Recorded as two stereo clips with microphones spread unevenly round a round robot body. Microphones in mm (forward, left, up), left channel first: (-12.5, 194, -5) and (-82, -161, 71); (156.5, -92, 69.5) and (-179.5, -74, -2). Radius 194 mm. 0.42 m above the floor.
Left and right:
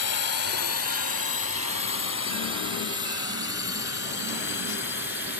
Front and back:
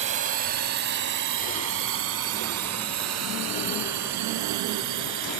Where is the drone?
110° left; by 5.4 s 140° left.